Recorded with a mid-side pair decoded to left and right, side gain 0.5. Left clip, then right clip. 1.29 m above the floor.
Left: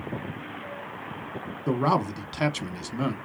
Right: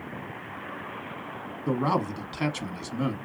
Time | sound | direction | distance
1.7 | a man speaking | 25° left | 0.9 m